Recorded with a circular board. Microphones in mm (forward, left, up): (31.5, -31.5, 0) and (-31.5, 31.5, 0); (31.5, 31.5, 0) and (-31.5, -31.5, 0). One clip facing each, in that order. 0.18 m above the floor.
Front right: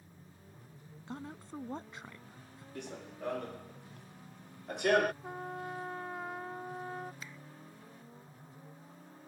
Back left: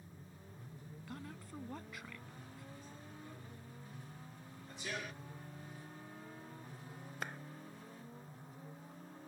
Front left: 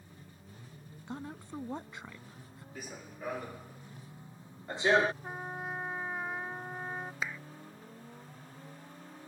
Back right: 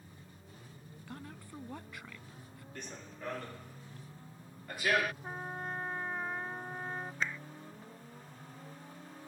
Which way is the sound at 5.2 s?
40° right.